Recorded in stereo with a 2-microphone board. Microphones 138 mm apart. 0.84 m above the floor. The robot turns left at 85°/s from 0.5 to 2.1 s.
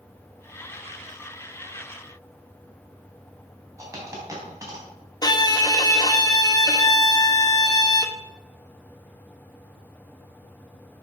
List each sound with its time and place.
3.8 s a dropped coin: 25° right (ahead or behind), 3 m
5.2 s a violin: 30° left (ahead or behind), 0.8 m